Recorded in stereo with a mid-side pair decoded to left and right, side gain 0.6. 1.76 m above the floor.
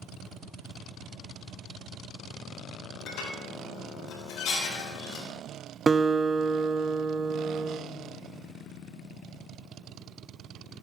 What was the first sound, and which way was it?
Dishes clattering, 70° left.